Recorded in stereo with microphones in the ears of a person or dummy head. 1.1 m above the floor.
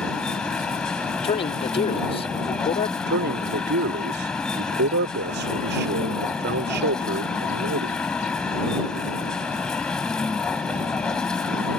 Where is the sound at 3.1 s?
55° right (ahead or behind).